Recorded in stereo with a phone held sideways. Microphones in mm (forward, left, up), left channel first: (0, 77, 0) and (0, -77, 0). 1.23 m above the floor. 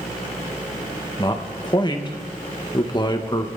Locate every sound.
1.2 s a man speaking: 30° left (ahead or behind), 1.6 m